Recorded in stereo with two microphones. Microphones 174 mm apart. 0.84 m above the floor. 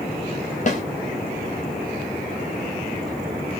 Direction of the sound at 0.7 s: 45° left (ahead or behind).